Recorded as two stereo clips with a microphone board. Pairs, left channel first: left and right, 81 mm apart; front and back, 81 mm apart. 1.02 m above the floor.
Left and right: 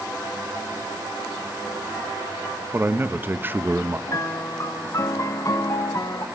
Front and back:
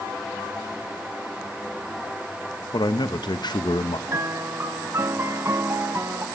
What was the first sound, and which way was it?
A man speaking, 25° right.